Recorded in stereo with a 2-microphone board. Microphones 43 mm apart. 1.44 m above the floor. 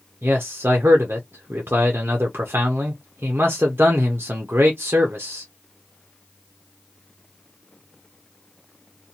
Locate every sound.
0.2 s a man speaking: 60° right (ahead or behind), 0.6 m